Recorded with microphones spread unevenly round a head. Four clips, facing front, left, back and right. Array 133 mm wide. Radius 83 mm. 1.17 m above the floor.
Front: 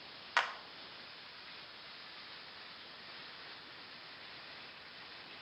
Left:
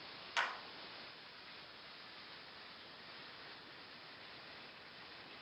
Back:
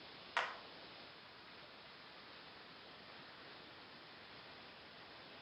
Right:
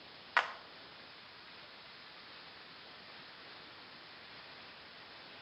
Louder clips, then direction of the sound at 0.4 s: Right 6 dB, front 6 dB; 40° right.